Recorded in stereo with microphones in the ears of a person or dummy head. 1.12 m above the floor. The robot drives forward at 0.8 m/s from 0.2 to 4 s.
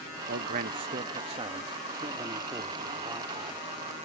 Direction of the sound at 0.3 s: 50° right (ahead or behind).